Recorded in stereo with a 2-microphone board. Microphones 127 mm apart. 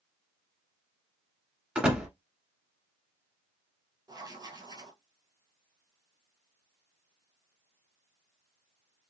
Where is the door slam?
10° right (ahead or behind), 1.4 m.